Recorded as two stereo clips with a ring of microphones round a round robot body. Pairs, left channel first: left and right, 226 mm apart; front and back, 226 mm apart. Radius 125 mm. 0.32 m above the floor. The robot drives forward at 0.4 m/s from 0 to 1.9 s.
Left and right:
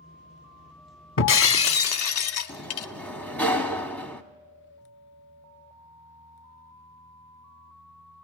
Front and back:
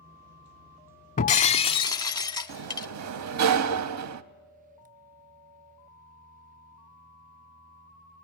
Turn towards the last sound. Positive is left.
turn(degrees=175)